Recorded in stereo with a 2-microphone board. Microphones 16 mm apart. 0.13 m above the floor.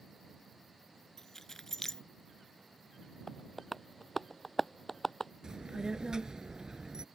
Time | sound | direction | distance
1.2 | keys jangling | 25° left (ahead or behind) | ?
3.3 | tapping | 10° left (ahead or behind) | ?
5.4 | a child speaking | 55° right (ahead or behind) | ?